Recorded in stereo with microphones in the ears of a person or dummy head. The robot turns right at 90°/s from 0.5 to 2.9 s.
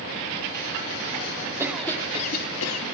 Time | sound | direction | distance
1.6 | a cough | 20° right | 2.5 m